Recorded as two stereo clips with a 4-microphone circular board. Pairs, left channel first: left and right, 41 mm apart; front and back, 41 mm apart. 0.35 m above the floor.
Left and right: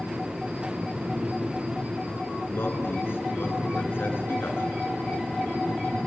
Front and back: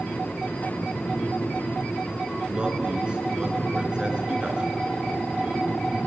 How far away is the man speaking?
About 4 m.